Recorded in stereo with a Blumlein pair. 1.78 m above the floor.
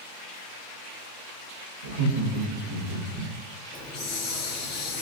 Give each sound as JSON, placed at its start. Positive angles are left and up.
{"t": 1.8, "sound": "laughter", "azimuth_deg": -65, "distance_m": 0.7}
{"t": 3.7, "sound": "a hiss", "azimuth_deg": 30, "distance_m": 0.8}